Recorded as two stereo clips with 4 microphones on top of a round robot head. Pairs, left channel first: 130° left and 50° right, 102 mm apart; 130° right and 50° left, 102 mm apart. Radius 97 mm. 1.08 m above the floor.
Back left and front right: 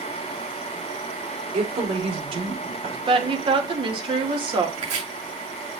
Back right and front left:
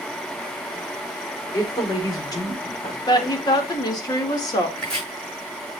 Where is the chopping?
50° right, 7.5 m.